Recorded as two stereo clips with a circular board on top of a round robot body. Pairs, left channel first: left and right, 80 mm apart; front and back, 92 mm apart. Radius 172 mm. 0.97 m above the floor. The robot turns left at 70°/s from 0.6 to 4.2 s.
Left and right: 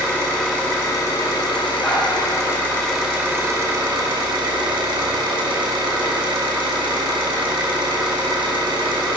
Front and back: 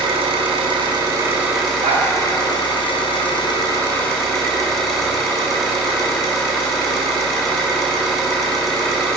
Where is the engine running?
165° left, 1.6 m; by 9.2 s 85° right, 1.6 m.